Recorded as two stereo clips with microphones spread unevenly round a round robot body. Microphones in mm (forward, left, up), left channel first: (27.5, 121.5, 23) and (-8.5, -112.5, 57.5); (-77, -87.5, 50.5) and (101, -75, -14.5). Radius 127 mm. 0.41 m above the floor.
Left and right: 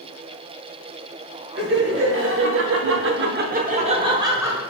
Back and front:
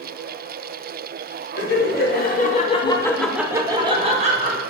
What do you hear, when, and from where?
1.6 s laughter: 145° right, 1.9 m; by 4.6 s 15° right, 1.9 m